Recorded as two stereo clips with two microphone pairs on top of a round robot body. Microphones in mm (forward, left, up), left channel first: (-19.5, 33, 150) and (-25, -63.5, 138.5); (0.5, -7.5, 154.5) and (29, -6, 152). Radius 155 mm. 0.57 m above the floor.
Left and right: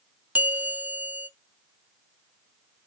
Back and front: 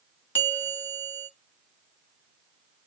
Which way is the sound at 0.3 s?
165° right.